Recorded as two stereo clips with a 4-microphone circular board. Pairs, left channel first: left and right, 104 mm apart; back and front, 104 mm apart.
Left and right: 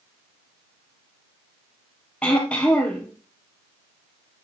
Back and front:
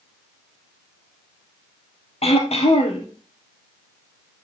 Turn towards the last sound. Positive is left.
turn(degrees=170)